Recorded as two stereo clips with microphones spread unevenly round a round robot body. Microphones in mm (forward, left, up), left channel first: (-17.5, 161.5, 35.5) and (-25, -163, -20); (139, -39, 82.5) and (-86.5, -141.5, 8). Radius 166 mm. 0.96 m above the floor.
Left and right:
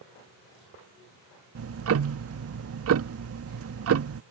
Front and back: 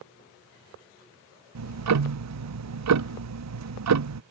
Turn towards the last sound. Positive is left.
turn(degrees=-140)